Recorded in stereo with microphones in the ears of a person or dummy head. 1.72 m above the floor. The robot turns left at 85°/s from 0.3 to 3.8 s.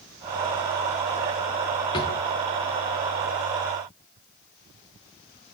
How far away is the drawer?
About 1.0 m.